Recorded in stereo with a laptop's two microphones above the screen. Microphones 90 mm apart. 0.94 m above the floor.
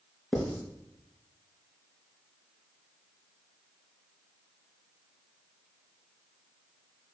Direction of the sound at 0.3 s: 5° left (ahead or behind).